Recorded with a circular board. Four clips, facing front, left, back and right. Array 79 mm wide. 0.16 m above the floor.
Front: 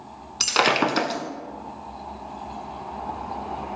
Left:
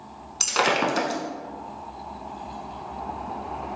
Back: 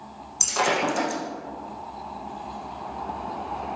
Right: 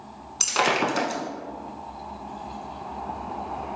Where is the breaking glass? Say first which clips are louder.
Left 1 dB, front 3 dB; 5° left, 0.5 m.